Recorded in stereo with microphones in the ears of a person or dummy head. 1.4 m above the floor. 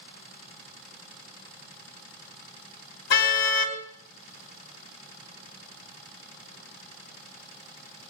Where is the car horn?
70° left (ahead or behind), 3.5 m.